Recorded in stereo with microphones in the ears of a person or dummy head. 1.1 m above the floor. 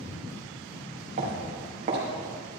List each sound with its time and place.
1.2 s footsteps: 45° right (ahead or behind), 4.5 m